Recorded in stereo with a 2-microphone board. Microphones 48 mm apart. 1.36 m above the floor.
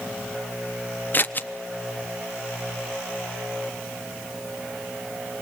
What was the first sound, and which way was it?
Scissors, 45° left (ahead or behind).